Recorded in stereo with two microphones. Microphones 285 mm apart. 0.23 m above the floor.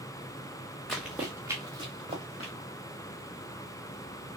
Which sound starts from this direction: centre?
Running footsteps, at 0.9 s.